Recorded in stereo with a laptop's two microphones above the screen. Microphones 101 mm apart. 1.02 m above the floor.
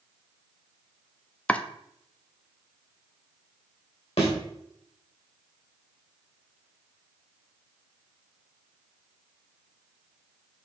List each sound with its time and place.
1.5 s chopping: 10° left (ahead or behind), 0.5 m
4.2 s a thud: 80° left, 2 m